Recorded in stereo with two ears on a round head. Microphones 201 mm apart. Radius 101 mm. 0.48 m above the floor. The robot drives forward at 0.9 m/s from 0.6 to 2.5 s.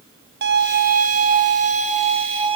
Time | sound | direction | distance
0.4 | a violin | 50° right (ahead or behind) | 1.8 m